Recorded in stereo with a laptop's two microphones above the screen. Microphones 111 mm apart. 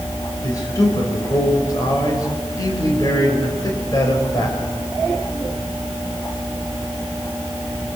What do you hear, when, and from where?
0.4 s a man speaking: 35° left (ahead or behind), 4 m